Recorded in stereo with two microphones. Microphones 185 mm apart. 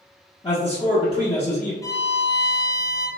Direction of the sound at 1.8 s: 20° left (ahead or behind).